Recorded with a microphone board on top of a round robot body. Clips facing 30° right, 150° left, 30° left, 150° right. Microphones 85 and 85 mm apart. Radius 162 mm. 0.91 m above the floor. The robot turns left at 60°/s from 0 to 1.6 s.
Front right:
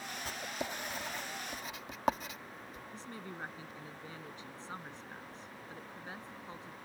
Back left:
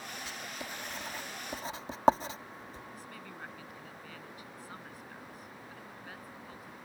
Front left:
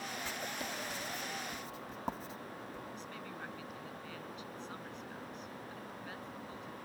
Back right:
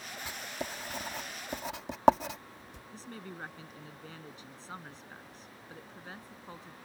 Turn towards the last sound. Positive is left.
turn(degrees=-95)